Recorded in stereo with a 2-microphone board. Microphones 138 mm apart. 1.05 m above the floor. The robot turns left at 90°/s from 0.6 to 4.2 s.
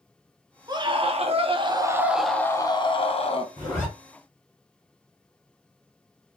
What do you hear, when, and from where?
0.7 s a scream: 40° right, 0.6 m; by 3.5 s 70° left, 0.6 m
3.6 s a zipper: 35° left (ahead or behind), 2 m; by 3.9 s 10° left (ahead or behind), 2 m